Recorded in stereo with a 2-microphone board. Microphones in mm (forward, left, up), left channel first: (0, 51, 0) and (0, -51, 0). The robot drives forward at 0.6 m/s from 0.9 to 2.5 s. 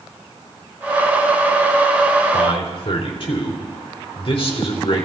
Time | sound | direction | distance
2.3 | a man speaking | 55° left (ahead or behind) | 3.5 m